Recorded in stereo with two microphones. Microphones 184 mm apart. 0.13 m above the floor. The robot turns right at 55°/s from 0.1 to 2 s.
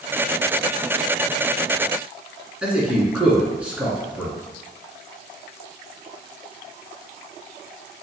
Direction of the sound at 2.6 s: 5° right (ahead or behind).